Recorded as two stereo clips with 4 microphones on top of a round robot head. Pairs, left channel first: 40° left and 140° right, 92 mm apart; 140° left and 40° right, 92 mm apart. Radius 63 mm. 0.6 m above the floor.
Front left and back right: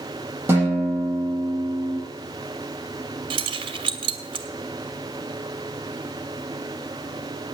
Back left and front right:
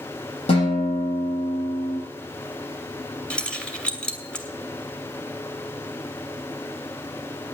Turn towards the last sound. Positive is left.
turn(degrees=-140)